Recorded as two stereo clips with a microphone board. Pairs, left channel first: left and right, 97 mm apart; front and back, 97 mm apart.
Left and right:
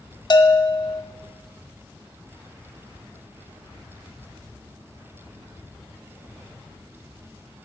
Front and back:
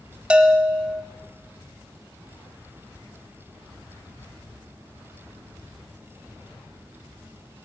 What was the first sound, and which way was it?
A bell, 105° left.